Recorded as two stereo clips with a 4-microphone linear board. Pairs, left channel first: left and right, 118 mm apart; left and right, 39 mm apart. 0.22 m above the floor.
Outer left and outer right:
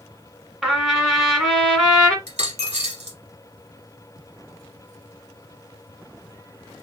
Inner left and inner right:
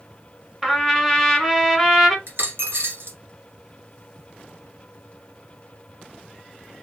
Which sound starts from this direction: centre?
A trumpet, at 0.6 s.